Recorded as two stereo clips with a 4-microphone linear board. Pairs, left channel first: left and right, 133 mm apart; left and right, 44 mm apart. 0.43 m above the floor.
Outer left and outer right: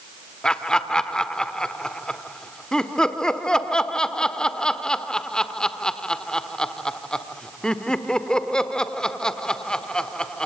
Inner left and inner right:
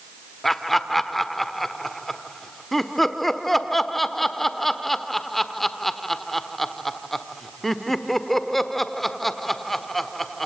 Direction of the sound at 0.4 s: 5° left (ahead or behind).